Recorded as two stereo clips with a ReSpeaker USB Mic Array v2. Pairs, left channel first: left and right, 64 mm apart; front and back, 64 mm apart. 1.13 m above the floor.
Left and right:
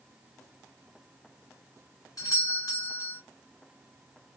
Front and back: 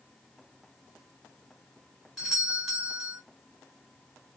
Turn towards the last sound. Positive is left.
turn(degrees=95)